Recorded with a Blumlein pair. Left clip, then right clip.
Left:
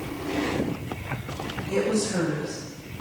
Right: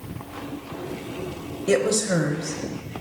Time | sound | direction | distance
1.7 | a woman speaking | 50° right | 3 m